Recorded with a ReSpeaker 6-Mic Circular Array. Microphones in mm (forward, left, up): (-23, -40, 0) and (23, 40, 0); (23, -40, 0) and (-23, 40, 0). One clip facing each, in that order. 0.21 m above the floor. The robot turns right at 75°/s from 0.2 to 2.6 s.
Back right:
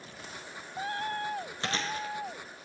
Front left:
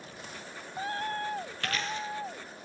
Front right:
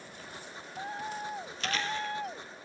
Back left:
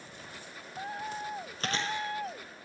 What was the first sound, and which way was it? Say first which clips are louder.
Chewing: back right 1 dB, even; 170° left.